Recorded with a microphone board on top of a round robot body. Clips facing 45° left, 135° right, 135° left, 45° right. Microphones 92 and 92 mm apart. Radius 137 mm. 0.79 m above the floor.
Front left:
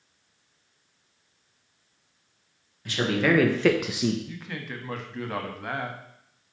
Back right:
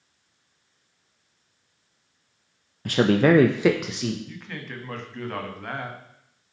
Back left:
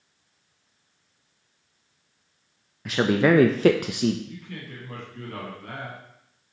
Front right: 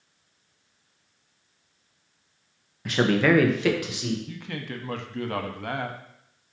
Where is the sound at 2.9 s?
135° right, 0.7 m; by 4.2 s 115° left, 0.8 m.